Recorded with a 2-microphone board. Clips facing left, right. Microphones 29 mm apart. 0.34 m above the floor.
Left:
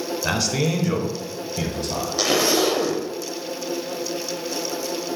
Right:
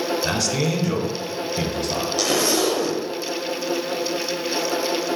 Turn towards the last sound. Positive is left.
turn(degrees=15)  # may be behind; listen again after turning